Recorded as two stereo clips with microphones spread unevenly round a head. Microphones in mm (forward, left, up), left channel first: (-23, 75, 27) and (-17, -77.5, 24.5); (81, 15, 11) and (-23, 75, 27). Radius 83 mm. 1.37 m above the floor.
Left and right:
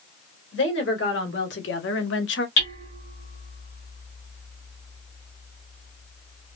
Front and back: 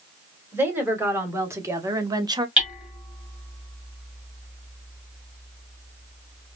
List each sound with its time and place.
0.5 s a woman speaking: 80° left, 2.5 m; by 2.5 s 95° left, 0.8 m
2.6 s hammering: 70° left, 3 m